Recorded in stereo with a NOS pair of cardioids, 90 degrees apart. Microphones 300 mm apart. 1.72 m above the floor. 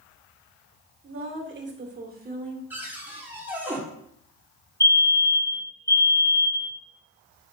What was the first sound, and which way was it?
A woman speaking, 45° right.